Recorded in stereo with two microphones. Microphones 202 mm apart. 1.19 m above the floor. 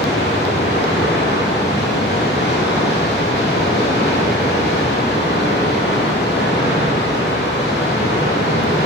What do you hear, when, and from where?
0.0 s running water: 55° left (ahead or behind), 1.8 m